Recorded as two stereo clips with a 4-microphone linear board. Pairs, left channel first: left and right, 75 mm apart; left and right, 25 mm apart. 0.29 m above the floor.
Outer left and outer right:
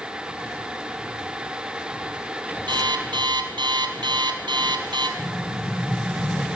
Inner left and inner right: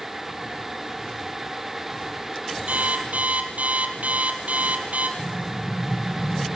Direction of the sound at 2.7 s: 85° right.